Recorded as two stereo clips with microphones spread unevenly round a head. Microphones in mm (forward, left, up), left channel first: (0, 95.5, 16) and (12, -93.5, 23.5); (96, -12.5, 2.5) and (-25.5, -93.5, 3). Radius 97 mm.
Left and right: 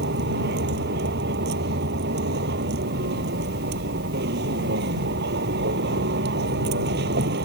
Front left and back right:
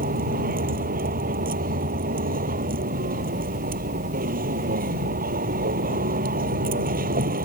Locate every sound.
0.0 s a vehicle: 125° right